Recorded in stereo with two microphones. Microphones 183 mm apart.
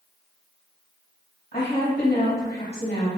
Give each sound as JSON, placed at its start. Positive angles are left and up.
{"t": 1.5, "sound": "a woman speaking", "side_deg": 55, "distance_m": 2.0}